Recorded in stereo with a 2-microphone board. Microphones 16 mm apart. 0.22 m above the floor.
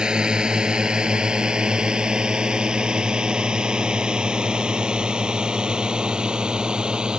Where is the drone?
70° right (ahead or behind); by 7.2 s 75° right (ahead or behind).